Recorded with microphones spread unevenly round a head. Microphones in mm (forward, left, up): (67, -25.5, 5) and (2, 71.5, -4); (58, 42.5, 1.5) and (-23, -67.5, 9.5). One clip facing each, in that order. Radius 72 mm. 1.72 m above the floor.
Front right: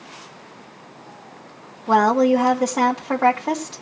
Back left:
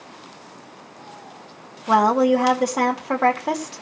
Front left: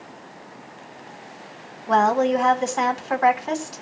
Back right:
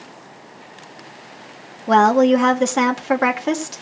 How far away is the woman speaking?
About 2 m.